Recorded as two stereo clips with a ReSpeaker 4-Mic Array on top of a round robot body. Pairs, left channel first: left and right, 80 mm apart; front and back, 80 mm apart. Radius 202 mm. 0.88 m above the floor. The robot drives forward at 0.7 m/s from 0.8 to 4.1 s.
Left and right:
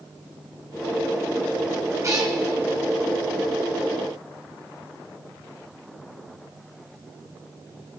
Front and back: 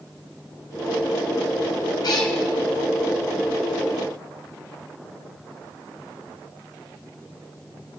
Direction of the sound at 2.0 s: 40° right.